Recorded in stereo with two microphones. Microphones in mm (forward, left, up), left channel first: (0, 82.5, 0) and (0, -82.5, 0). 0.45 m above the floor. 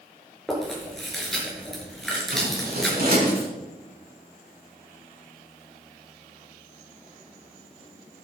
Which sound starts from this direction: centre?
Chewing, at 0.5 s.